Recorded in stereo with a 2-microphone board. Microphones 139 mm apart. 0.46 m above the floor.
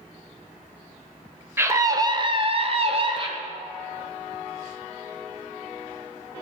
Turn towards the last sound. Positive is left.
turn(degrees=-35)  # may be behind; listen again after turning